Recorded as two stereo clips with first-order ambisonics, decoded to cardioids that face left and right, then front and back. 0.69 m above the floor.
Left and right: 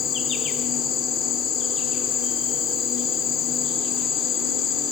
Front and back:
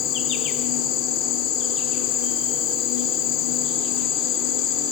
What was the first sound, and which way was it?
An insect, 40° left.